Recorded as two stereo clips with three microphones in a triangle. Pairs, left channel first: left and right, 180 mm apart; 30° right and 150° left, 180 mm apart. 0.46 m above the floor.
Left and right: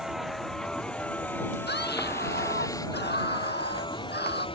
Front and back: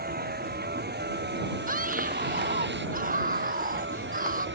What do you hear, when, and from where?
0.0 s a vehicle: straight behind; by 4.6 s 150° left
1.7 s a scream: 110° left